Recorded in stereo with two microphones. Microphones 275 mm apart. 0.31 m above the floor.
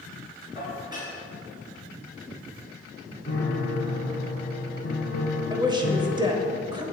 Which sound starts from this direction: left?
A piano, at 3.3 s.